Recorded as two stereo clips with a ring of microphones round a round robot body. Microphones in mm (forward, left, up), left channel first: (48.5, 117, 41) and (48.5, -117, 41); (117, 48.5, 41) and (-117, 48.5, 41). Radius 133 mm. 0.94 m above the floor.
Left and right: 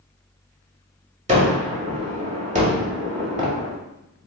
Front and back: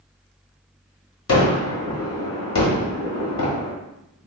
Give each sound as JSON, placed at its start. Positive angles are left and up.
{"t": 1.3, "sound": "a gunshot", "azimuth_deg": -30, "distance_m": 1.3}